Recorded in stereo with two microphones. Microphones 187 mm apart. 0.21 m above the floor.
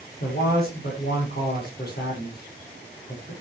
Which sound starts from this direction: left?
A man speaking, at 0.2 s.